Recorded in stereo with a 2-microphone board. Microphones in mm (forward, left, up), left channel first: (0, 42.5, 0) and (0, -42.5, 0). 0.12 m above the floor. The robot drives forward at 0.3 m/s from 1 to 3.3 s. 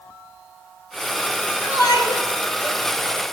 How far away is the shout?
About 2.5 m.